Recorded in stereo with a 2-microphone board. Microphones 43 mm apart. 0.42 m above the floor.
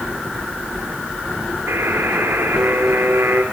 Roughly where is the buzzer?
Right.